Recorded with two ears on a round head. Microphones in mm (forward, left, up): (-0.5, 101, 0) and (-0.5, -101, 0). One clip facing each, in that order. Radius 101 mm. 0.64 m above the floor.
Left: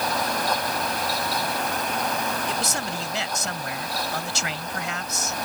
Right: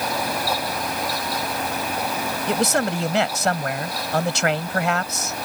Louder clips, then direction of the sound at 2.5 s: Right 8 dB; 50° right (ahead or behind).